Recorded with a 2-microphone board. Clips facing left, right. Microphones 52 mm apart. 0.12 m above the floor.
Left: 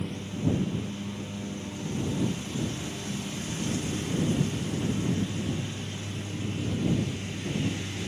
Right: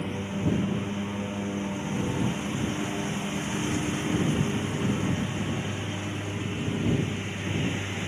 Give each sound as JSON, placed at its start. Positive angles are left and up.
{"t": 0.0, "sound": "a lawn mower", "side_deg": -30}